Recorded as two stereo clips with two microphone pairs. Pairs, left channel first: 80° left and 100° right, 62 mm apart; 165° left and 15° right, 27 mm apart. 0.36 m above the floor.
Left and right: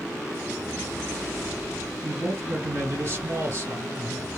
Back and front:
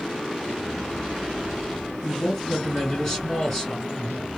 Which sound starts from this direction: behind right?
A man speaking, at 2.0 s.